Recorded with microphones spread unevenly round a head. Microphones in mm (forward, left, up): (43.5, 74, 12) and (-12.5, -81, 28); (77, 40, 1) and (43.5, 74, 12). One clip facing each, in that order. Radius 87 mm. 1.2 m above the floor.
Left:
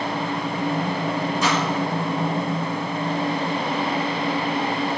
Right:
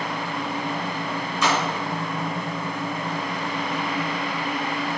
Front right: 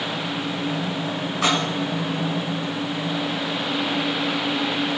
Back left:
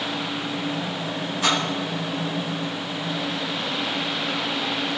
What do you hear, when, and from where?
1.4 s a splash: 85° right, 7 m